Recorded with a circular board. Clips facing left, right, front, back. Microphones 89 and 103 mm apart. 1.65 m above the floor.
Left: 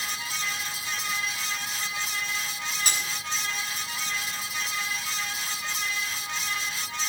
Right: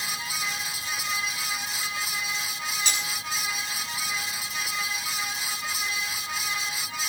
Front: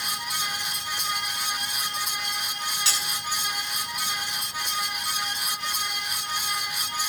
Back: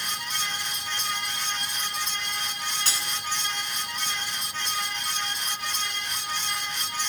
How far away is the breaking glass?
About 6 m.